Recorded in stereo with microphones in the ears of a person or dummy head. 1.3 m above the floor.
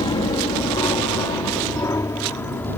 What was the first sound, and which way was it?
An aircraft, 25° left (ahead or behind).